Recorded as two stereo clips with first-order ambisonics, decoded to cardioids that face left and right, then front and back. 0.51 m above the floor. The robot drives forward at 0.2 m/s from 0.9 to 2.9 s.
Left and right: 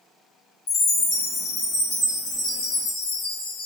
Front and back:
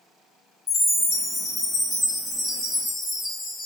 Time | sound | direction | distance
0.7 | a chime | 75° left | 2 m